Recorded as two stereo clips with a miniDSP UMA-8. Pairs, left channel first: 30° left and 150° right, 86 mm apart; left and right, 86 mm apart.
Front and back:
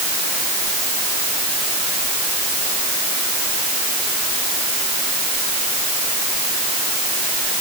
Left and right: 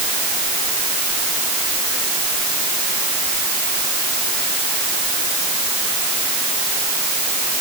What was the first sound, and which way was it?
Only background noise.